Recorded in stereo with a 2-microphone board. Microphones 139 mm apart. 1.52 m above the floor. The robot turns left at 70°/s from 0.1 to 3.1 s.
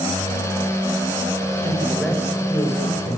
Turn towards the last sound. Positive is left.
turn(degrees=100)